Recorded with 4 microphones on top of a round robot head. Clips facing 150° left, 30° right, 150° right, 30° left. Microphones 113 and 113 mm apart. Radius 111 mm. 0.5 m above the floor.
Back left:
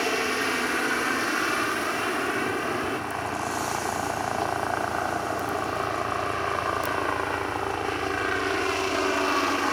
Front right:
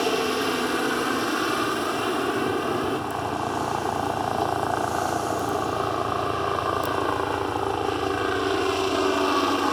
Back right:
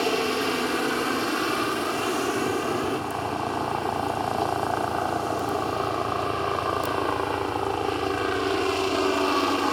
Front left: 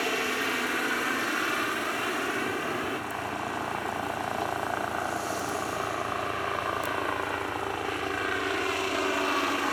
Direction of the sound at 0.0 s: 95° right.